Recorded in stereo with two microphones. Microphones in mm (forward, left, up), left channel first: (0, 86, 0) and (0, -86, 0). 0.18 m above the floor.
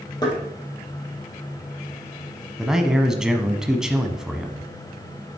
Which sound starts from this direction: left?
Knocking, at 0.2 s.